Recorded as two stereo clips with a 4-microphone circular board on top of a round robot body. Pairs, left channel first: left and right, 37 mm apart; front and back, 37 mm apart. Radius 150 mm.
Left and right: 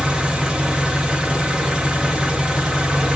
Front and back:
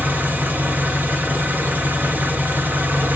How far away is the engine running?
About 1.1 m.